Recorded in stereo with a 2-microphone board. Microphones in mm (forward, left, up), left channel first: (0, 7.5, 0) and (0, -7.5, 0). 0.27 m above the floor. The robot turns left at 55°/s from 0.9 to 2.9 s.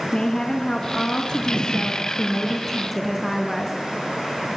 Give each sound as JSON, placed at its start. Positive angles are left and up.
{"t": 0.1, "sound": "a woman speaking", "azimuth_deg": 120, "distance_m": 2.5}